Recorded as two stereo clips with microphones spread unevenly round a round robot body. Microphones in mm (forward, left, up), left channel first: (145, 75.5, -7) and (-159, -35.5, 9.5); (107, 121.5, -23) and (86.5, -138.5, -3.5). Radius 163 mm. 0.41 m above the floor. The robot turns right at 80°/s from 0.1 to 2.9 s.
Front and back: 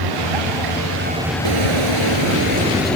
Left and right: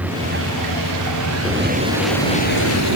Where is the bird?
175° left; by 3.0 s 65° right.